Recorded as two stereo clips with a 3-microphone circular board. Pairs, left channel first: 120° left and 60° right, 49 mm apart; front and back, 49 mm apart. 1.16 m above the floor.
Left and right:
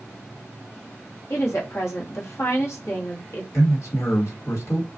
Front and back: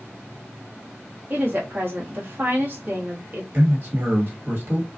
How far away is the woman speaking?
About 1.0 m.